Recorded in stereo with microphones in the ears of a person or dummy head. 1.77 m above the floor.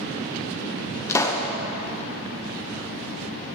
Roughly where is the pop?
Centre.